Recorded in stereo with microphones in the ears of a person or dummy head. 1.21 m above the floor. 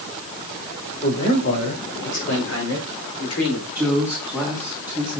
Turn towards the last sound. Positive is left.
turn(degrees=5)  # may be behind; listen again after turning